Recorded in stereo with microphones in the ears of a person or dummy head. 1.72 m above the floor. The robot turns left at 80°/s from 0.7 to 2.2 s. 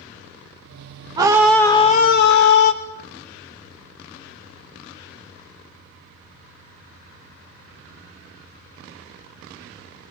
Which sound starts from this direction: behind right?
A scream, at 1.2 s.